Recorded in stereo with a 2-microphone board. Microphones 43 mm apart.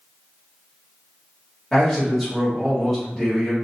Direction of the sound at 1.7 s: Centre (ahead or behind).